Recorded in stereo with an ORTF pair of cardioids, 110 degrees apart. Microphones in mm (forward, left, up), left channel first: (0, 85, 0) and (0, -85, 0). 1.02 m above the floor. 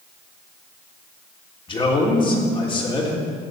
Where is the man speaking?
30° left, 3 m.